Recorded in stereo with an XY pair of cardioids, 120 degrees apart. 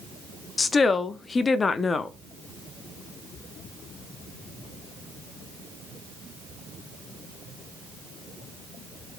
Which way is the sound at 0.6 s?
30° left.